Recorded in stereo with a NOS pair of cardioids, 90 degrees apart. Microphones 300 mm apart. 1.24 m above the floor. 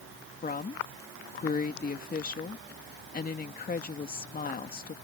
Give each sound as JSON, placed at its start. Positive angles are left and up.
{"t": 0.4, "sound": "a woman speaking", "azimuth_deg": 30}